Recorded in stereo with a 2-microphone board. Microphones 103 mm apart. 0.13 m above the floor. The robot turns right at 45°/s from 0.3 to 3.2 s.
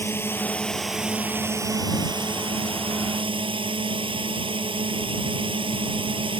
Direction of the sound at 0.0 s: 155° left.